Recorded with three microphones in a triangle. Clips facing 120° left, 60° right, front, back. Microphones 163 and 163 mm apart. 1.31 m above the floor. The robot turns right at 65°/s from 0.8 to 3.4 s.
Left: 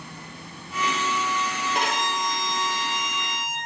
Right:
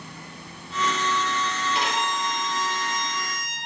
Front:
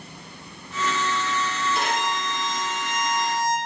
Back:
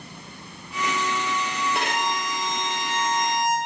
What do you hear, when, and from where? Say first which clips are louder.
1.8 s a violin: left 2 dB, front 1 dB; 155° left, 0.9 m; by 3.6 s 95° right, 0.9 m